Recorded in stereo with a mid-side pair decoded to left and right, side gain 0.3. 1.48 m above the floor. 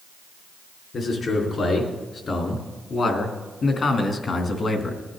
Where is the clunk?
No clunk in this recording.